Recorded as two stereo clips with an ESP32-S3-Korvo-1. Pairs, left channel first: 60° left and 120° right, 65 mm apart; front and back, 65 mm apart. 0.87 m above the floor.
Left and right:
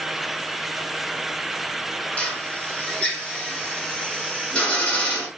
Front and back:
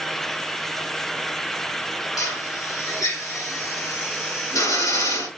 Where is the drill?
10° right, 1.5 m.